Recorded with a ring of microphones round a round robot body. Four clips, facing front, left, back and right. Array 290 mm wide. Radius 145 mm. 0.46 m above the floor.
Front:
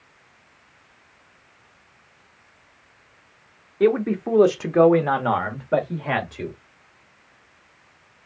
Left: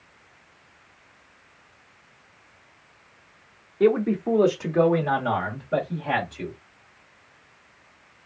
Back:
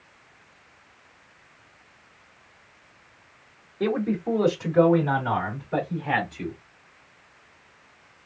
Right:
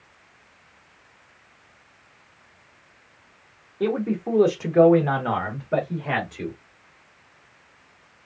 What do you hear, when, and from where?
3.8 s a man speaking: 25° left, 1.1 m; by 6.6 s 20° right, 2 m